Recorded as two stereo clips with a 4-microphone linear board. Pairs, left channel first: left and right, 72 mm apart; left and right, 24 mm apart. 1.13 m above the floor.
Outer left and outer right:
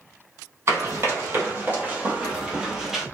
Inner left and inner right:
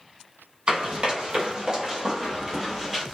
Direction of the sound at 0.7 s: 35° right (ahead or behind).